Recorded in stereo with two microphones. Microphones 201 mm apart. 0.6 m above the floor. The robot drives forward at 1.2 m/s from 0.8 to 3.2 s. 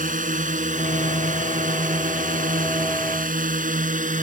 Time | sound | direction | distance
0.0 | a drone | 45° right (ahead or behind) | ?